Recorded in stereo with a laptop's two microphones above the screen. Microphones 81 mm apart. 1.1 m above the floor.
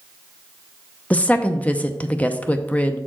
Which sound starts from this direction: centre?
A woman speaking, at 1.1 s.